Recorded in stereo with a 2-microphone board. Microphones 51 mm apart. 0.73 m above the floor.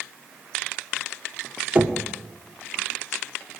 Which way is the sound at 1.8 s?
30° right (ahead or behind).